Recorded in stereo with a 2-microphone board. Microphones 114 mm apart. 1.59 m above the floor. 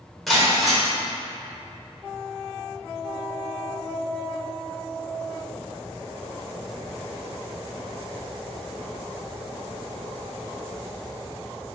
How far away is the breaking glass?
About 2.5 m.